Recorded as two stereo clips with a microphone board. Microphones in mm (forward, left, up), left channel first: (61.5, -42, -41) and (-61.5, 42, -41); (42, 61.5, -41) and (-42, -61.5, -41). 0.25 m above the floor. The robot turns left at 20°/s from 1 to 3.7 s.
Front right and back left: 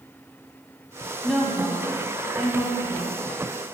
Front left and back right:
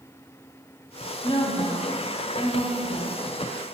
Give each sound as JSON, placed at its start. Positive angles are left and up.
{"t": 1.2, "sound": "a woman speaking", "azimuth_deg": 60, "distance_m": 1.1}